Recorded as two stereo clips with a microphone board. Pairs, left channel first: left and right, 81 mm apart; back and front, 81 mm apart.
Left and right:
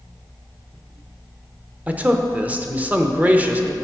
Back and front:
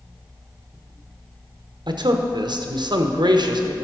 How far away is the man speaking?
About 0.7 m.